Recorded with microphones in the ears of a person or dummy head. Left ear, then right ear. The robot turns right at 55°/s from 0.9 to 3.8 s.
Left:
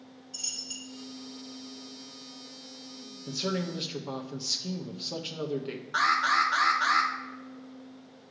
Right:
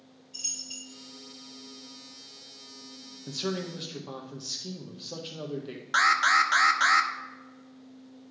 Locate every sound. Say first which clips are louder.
0.3 s a dropped coin: even; 25° left (ahead or behind), 2.5 m
3.3 s a man speaking: left 1 dB; 10° right (ahead or behind), 0.7 m; by 5.8 s 20° left (ahead or behind), 0.7 m
5.9 s an alarm: right 3 dB; 45° right (ahead or behind), 0.7 m